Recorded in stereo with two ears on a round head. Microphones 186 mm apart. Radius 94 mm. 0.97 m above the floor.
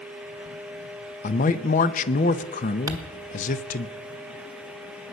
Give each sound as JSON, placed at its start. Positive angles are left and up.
{"t": 1.2, "sound": "a man speaking", "side_deg": 40, "distance_m": 0.7}
{"t": 2.9, "sound": "crumpling", "side_deg": -15, "distance_m": 1.2}